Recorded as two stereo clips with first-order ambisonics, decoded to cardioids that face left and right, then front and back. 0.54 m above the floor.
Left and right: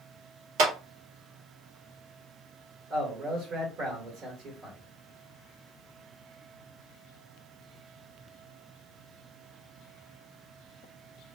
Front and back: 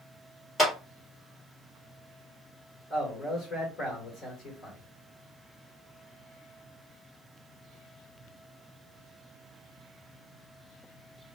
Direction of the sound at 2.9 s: 45° right.